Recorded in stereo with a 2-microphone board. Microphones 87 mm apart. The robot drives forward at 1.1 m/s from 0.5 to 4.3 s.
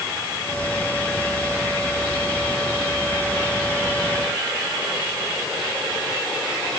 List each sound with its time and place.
Only background noise.